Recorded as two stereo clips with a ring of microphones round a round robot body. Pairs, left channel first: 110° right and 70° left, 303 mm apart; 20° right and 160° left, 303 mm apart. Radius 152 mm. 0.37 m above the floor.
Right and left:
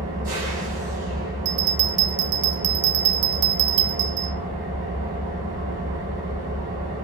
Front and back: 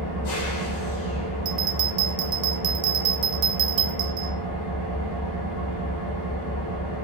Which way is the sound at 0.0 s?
5° left.